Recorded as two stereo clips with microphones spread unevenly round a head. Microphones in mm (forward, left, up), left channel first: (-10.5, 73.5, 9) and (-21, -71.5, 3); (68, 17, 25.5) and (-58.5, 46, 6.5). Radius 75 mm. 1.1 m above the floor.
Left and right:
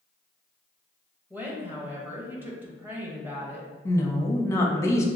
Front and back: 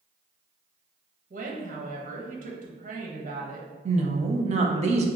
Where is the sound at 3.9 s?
155° left, 0.8 m.